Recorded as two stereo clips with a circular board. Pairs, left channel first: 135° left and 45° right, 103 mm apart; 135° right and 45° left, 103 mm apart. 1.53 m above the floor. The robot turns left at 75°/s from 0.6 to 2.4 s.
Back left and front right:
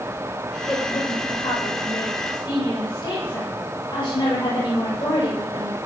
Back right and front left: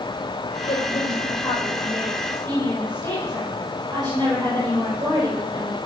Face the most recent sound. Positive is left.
turn(degrees=90)